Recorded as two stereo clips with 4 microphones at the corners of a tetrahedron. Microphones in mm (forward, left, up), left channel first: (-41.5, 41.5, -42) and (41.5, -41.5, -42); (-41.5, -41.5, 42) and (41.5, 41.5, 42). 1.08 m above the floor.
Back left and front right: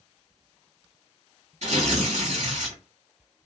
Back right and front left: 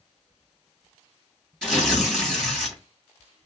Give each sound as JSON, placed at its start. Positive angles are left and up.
{"t": 1.6, "sound": "tearing paper", "azimuth_deg": -45, "distance_m": 2.0}